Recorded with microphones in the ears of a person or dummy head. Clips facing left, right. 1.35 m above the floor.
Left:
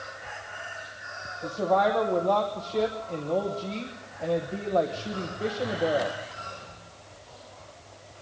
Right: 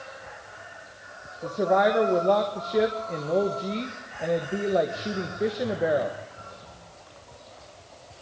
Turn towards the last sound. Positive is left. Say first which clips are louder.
# right 2 dB
turn(degrees=-20)  # may be behind; listen again after turning